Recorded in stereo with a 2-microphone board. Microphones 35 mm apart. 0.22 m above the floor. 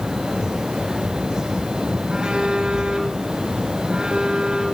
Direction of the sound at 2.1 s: 25° right (ahead or behind).